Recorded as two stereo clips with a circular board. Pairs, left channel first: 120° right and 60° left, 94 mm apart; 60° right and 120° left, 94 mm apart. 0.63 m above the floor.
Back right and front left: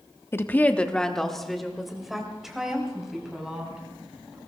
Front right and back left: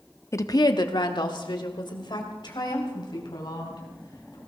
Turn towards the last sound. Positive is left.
turn(degrees=-25)